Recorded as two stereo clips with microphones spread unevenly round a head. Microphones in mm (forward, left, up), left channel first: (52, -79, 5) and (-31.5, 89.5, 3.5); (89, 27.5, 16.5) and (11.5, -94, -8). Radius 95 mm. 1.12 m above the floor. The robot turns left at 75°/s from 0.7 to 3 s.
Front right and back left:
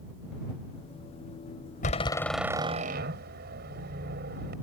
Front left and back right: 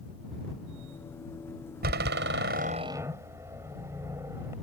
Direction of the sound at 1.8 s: 115° right.